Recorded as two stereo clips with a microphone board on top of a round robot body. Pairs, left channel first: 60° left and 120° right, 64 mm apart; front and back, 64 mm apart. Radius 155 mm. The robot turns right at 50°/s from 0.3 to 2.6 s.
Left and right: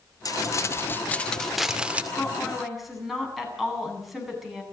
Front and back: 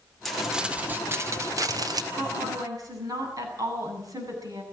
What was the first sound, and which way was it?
Crumpling, 90° left.